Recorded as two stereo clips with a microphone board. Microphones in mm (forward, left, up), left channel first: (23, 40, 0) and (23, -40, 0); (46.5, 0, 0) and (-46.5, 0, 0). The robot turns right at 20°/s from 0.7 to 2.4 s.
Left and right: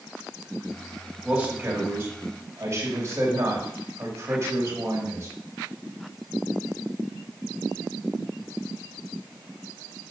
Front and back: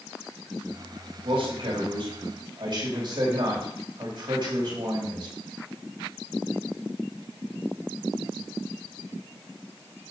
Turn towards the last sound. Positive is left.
turn(degrees=-145)